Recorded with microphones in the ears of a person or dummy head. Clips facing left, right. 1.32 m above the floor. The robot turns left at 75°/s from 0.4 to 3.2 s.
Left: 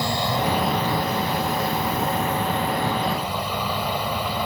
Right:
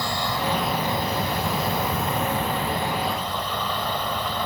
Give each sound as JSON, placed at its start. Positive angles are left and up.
{"t": 0.0, "sound": "an insect", "azimuth_deg": 20}